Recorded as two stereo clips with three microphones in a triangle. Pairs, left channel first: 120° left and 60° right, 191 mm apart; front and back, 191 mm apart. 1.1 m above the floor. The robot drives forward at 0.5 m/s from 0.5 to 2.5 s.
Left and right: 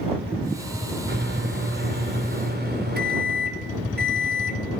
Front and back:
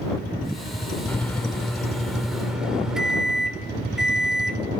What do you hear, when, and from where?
1.1 s a microwave: 80° right, 3.5 m; by 4.6 s 95° right, 3.5 m